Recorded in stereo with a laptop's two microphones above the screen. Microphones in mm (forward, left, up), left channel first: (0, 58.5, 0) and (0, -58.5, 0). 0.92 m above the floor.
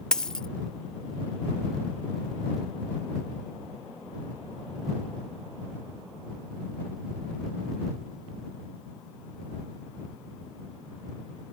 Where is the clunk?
No clunk in this recording.